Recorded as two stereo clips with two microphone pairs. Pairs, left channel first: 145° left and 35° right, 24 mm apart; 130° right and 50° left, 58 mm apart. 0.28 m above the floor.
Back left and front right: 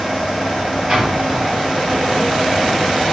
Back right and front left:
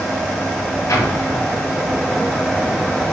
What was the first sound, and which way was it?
An explosion, 100° right.